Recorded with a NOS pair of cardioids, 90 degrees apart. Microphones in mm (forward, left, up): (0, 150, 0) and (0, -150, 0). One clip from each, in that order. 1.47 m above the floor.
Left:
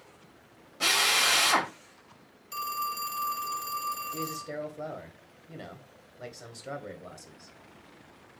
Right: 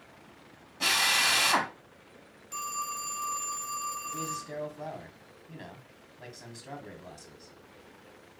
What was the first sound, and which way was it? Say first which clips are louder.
A drill: left 1 dB; 15° left.